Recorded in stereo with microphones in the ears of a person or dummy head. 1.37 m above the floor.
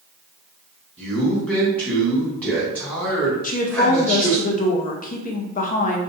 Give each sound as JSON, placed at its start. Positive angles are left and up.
{"t": 1.0, "sound": "a man speaking", "side_deg": -5, "distance_m": 1.2}
{"t": 3.4, "sound": "a woman speaking", "side_deg": 55, "distance_m": 0.6}